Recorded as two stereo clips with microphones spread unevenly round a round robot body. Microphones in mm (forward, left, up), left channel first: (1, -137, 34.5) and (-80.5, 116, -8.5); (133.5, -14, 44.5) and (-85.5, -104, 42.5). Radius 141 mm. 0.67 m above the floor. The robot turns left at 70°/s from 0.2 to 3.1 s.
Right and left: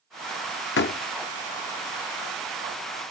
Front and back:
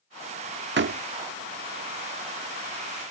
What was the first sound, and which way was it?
A door slam, 120° right.